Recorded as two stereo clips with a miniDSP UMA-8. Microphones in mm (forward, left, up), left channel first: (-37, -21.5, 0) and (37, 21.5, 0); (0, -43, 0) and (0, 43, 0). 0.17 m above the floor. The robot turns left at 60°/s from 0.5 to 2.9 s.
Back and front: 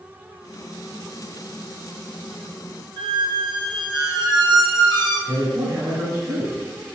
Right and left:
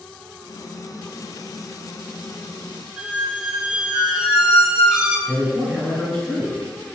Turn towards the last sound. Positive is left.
turn(degrees=-25)